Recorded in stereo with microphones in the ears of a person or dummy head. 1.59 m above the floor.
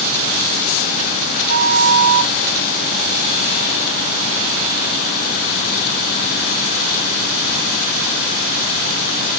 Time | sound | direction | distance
1.5 | a flute | 45° right (ahead or behind) | 1.0 m